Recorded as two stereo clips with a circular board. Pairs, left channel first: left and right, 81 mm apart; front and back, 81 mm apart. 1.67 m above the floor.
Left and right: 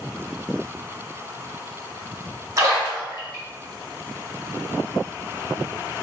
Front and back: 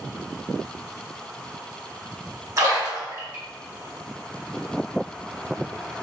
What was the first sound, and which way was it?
A splash, 135° right.